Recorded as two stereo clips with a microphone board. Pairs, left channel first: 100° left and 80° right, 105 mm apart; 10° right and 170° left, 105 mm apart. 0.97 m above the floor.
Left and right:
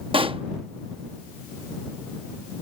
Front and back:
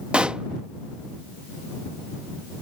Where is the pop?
110° right.